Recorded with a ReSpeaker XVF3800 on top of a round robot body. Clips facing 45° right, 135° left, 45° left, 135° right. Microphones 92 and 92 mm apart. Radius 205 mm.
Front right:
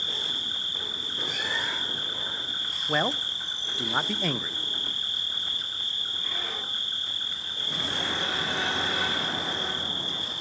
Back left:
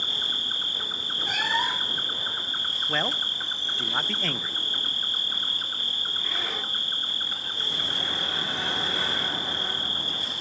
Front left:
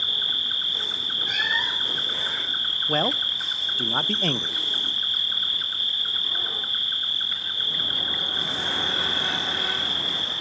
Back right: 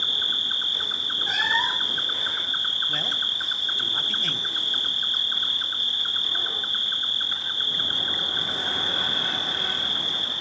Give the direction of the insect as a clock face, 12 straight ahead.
7 o'clock.